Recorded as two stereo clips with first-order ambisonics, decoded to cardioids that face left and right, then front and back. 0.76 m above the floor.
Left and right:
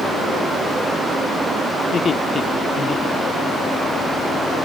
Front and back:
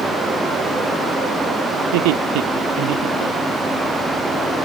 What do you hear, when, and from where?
1.8 s laughter: 160° left